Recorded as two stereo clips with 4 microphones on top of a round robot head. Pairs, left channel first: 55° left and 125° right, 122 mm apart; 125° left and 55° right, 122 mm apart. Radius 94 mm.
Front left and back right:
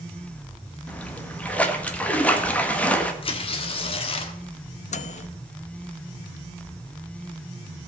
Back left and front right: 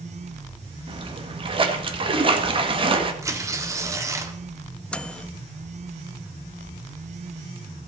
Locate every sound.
0.9 s a splash: 25° right, 1.7 m
3.2 s tearing paper: 10° left, 1.5 m
4.9 s a microwave: 45° left, 0.7 m